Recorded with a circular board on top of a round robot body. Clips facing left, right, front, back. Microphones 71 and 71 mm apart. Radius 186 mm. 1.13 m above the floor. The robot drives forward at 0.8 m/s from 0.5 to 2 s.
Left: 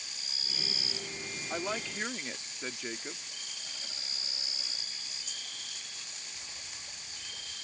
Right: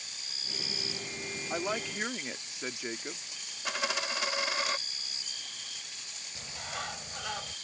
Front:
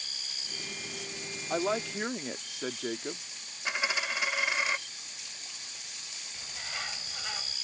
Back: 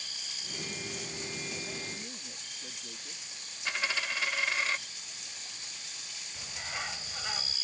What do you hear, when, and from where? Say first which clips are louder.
1.5 s a woman speaking: right 2 dB, front 11 dB; 5° right
3.6 s a dropped coin: right 15 dB, front 2 dB; 75° right
6.3 s a bird: right 10 dB, back 1 dB; 100° right